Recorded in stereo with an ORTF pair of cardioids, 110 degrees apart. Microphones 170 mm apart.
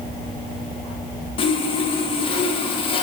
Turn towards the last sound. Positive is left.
turn(degrees=35)